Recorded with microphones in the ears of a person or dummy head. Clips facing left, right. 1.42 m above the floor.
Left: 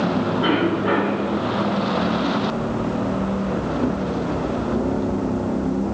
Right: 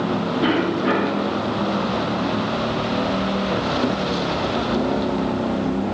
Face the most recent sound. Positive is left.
turn(degrees=-30)  # may be behind; listen again after turning